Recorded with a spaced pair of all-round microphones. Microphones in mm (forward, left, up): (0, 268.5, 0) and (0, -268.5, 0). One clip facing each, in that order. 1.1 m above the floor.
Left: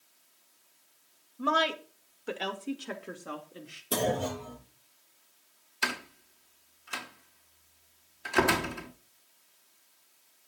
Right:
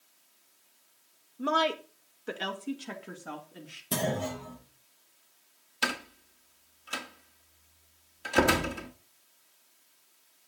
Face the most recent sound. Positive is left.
turn(degrees=-55)  # may be behind; listen again after turning